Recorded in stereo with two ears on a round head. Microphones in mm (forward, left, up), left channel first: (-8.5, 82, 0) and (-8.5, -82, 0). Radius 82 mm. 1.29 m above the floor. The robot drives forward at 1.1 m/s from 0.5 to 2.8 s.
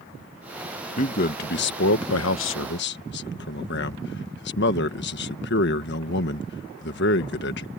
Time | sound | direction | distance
1.0 | a man speaking | 40° left (ahead or behind) | ?